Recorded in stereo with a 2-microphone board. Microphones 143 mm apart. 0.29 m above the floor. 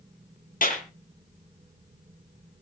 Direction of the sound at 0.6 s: 75° left (ahead or behind).